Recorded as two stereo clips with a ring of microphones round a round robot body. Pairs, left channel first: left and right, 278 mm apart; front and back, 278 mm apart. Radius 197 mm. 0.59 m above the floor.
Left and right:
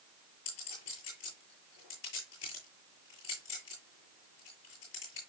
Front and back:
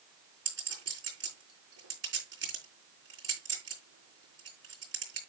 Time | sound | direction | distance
0.5 | a clink | 145° left | 8.5 m